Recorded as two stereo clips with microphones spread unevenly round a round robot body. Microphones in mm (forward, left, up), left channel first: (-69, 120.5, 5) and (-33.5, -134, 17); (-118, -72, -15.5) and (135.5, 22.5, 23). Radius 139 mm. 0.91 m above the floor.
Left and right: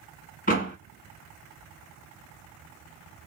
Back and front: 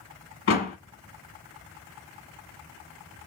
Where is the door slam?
155° left, 1.4 m.